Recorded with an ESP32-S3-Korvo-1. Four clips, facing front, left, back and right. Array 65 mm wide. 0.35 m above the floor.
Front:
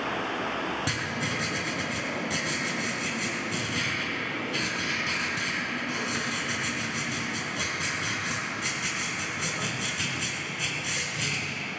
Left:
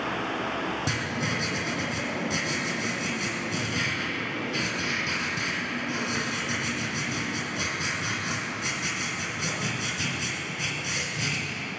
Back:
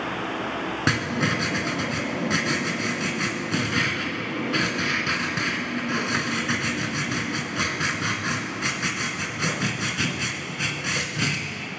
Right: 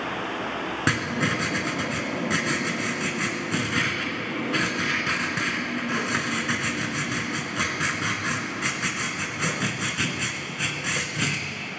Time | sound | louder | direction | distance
0.9 | writing | right 5 dB, back 7 dB | 135° right | 2 m